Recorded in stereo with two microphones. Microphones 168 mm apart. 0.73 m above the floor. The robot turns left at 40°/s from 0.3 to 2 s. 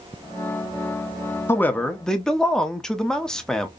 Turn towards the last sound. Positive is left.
turn(degrees=5)  # may be behind; listen again after turning